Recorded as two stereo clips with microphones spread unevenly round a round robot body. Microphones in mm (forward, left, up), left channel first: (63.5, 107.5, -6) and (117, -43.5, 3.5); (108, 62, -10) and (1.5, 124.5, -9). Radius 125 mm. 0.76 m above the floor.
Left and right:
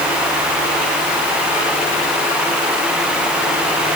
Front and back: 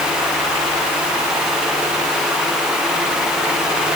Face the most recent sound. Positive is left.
No sound to turn to.